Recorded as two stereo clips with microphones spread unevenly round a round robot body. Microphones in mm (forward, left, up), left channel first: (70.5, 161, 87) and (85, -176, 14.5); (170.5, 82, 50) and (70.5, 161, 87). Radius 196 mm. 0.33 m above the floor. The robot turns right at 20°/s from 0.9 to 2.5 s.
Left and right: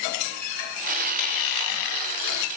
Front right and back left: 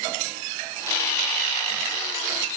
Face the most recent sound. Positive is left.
No sound to turn to.